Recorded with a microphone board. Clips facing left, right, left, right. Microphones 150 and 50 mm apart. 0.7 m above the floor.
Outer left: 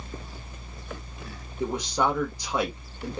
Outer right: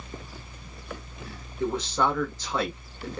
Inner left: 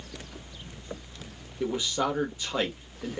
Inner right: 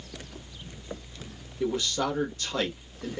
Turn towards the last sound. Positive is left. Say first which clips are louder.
# even, even
turn(degrees=15)  # may be behind; listen again after turning